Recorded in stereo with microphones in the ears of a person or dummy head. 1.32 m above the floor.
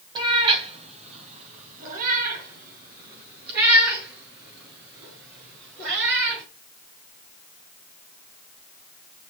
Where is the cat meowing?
25° right (ahead or behind), 2.5 m; by 6.4 s 70° right (ahead or behind), 7 m.